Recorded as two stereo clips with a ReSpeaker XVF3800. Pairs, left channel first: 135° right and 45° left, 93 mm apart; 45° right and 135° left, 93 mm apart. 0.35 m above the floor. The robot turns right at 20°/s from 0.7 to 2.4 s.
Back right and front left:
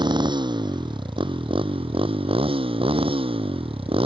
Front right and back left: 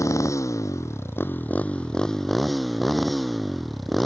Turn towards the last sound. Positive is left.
turn(degrees=45)